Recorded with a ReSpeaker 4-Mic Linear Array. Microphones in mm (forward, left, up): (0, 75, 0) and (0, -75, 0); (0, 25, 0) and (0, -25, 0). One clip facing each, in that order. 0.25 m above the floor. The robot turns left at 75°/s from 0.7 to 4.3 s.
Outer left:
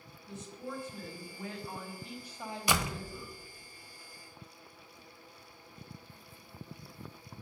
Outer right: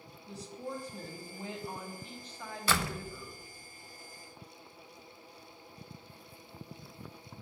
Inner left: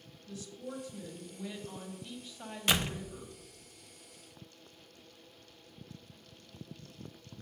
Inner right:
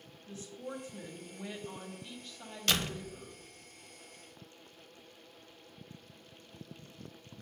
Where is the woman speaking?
80° right, 1.5 m; by 3.3 s 80° left, 1.5 m.